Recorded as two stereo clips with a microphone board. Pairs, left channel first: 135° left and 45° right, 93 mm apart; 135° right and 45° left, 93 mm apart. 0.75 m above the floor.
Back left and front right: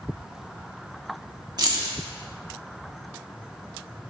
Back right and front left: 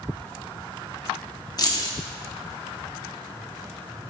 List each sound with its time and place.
1.6 s keys jangling: 90° right, 0.7 m